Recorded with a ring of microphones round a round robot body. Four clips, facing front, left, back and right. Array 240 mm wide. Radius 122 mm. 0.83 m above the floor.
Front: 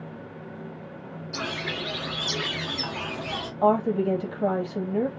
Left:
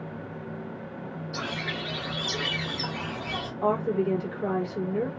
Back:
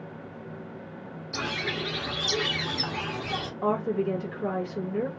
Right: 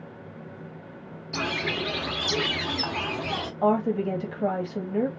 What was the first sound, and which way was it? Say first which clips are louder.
A bird: right 6 dB, even; 95° right.